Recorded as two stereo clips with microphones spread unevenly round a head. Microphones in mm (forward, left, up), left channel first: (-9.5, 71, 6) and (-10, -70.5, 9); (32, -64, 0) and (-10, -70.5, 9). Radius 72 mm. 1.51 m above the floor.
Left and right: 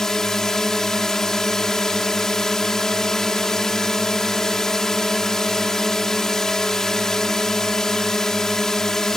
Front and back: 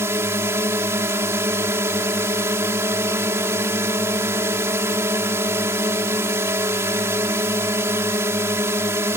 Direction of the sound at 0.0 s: 175° left.